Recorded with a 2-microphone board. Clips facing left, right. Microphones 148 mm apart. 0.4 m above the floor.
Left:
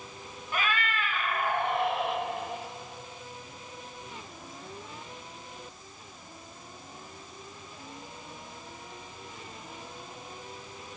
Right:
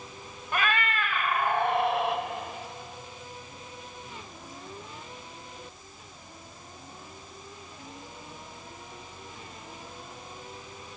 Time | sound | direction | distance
0.5 | a cat meowing | 80° right | 0.8 m